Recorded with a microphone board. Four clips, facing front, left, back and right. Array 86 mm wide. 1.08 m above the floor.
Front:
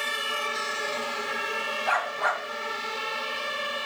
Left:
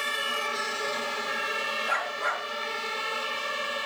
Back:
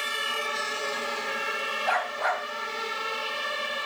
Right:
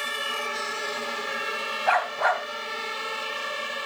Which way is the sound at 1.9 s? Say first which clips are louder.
Right 9 dB, front 1 dB; 90° right.